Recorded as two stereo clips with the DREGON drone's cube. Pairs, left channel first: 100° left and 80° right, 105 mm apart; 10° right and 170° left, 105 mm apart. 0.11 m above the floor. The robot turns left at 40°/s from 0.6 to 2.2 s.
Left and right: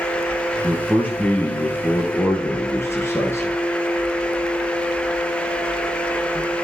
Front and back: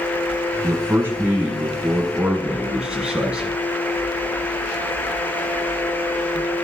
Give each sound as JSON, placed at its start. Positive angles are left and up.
{"t": 0.6, "sound": "a man speaking", "azimuth_deg": 170, "distance_m": 1.1}